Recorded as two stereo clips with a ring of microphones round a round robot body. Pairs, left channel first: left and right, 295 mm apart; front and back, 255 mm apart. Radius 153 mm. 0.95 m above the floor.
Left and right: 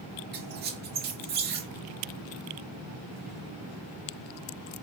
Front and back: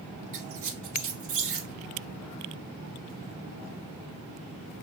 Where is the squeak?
150° right, 1.2 m.